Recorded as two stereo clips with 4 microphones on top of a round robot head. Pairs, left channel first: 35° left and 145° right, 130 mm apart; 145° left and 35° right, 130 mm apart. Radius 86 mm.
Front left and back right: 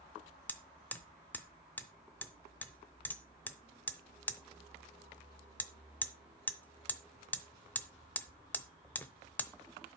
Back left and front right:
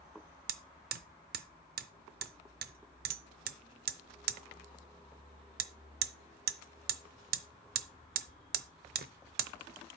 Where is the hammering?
45° right, 0.7 m.